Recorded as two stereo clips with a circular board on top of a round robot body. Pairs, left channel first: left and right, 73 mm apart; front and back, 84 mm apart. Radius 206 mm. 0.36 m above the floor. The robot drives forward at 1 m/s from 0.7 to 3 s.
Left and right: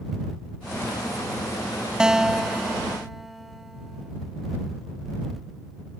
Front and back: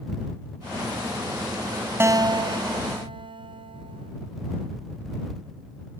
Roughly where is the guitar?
Behind.